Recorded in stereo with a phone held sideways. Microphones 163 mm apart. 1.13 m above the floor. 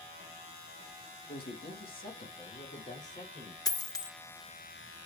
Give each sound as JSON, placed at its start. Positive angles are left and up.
{"t": 1.3, "sound": "a man speaking", "side_deg": 70, "distance_m": 1.4}
{"t": 3.6, "sound": "a dropped coin", "side_deg": 20, "distance_m": 0.7}